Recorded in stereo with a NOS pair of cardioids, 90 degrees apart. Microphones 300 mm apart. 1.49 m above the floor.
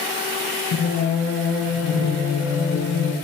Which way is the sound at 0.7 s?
55° left.